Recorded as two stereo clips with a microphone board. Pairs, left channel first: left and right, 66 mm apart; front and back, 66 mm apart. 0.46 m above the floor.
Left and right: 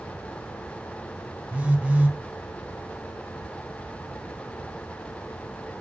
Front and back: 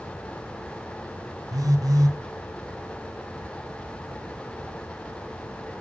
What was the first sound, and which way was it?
A phone buzzing, 160° right.